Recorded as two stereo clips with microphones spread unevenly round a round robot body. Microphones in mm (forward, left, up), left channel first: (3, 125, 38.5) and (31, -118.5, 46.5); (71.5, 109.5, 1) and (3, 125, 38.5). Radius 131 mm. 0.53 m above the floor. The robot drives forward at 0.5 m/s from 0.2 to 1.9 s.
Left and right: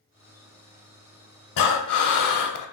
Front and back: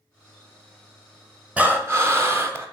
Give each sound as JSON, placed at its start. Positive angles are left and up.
{"t": 1.6, "sound": "breathing", "azimuth_deg": 100, "distance_m": 0.6}